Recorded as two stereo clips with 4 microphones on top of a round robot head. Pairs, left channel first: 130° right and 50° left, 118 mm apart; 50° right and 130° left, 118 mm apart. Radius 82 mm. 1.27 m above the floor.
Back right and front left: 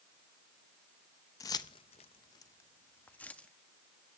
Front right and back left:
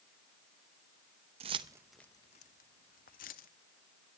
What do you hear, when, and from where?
1.4 s keys jangling: 170° left, 0.7 m; by 3.5 s 50° right, 1.4 m